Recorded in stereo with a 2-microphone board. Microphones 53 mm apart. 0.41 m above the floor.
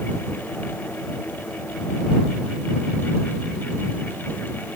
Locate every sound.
Only background noise.